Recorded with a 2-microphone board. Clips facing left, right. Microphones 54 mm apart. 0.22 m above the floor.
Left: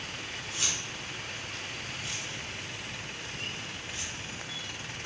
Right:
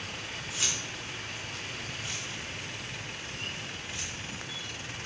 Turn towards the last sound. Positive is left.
turn(degrees=10)  # may be behind; listen again after turning